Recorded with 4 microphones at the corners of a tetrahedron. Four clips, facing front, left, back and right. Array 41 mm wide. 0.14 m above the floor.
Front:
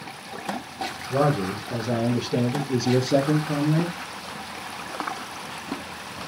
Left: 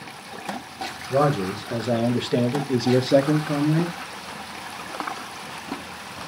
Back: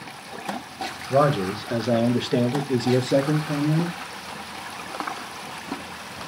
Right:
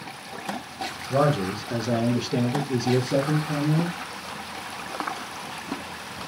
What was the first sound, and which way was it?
A man speaking, straight behind.